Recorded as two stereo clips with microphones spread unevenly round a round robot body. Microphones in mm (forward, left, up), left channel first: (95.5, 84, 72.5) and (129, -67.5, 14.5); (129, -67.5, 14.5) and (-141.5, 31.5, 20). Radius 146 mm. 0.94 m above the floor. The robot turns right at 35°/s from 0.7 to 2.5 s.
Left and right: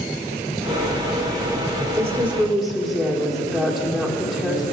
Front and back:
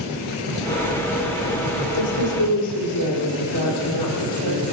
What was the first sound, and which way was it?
A woman speaking, 10° right.